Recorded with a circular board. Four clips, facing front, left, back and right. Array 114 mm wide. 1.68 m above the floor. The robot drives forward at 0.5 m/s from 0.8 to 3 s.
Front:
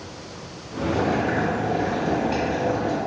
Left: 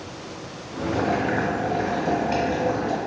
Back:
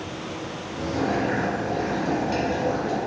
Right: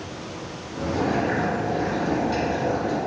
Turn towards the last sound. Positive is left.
turn(degrees=100)